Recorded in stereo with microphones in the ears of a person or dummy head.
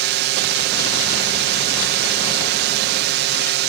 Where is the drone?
60° right (ahead or behind).